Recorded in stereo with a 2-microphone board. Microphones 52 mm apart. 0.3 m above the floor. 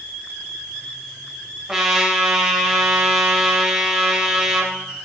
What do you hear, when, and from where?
1.7 s a trumpet: 10° right (ahead or behind), 0.7 m